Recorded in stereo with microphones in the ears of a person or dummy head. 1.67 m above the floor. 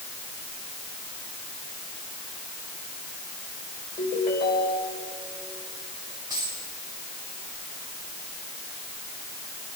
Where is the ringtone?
35° left (ahead or behind), 4.5 m.